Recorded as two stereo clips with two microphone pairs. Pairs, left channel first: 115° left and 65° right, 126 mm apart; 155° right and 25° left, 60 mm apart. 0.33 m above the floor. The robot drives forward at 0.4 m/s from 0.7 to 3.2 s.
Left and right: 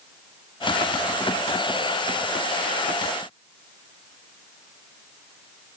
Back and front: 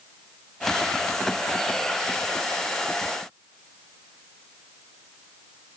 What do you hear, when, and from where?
Only background noise.